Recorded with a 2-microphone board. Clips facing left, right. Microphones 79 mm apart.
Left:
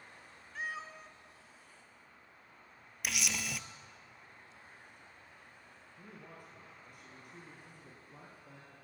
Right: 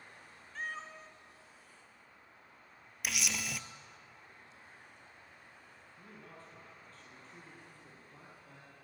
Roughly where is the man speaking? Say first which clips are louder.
Left 1 dB; centre.